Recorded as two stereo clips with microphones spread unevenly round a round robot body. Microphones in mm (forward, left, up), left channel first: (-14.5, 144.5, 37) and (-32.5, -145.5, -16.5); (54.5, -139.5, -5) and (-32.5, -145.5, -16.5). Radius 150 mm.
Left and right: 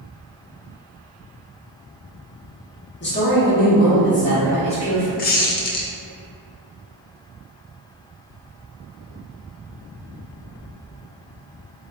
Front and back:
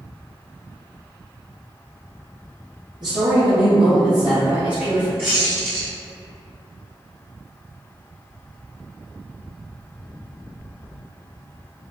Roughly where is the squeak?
Behind left.